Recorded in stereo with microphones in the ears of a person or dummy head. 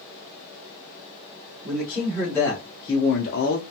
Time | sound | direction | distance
1.6 | a man speaking | 5° left (ahead or behind) | 1.5 m